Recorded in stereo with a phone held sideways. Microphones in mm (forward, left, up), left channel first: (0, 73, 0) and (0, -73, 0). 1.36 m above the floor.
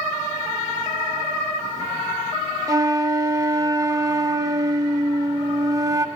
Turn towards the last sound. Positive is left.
turn(degrees=-25)  # may be behind; listen again after turning